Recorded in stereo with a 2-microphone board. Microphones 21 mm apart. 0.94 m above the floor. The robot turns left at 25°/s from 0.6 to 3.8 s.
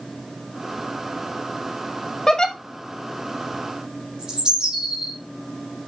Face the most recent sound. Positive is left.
turn(degrees=-45)  # may be behind; listen again after turning